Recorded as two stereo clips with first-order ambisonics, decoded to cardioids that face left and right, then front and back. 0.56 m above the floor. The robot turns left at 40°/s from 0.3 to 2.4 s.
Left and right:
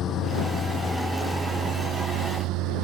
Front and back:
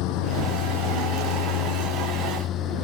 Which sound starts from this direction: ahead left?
A lawn mower, at 0.0 s.